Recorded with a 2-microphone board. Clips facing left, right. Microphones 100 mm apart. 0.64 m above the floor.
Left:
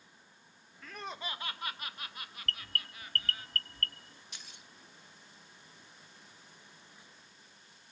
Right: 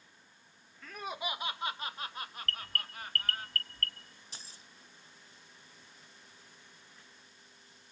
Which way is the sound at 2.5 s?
30° left (ahead or behind).